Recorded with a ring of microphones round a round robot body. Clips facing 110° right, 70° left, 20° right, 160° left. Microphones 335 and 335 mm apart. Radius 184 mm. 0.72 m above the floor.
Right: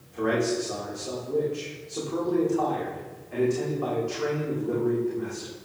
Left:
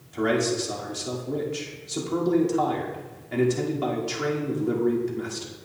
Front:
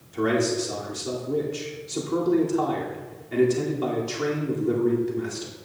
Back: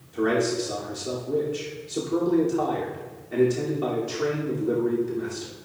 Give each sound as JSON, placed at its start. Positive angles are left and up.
{"t": 0.1, "sound": "a man speaking", "azimuth_deg": 50, "distance_m": 2.5}